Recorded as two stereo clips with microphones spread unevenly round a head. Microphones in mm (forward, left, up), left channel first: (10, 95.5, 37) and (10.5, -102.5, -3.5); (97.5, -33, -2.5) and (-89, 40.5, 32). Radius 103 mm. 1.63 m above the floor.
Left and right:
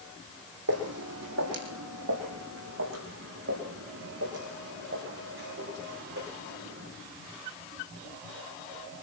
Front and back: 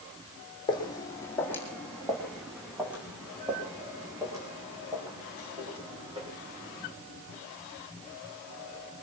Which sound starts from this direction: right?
Footsteps, at 0.7 s.